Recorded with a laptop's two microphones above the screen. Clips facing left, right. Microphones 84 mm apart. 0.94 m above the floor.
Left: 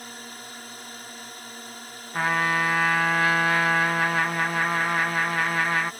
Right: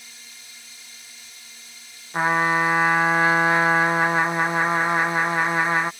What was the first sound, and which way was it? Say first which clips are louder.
A drone: left 9 dB; 55° left (ahead or behind).